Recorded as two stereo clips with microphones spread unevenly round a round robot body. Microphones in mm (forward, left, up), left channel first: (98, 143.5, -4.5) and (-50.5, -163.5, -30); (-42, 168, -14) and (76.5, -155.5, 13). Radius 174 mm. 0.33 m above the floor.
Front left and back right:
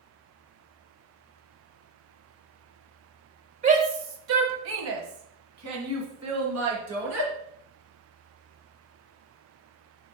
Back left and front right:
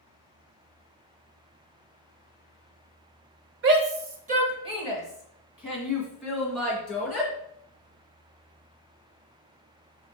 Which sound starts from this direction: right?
A shout, at 3.6 s.